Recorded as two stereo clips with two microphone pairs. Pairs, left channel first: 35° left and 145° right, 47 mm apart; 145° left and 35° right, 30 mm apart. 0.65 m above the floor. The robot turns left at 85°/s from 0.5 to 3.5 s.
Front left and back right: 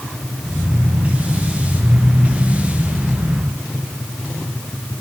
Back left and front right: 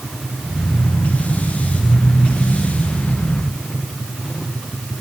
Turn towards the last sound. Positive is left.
No sound to turn to.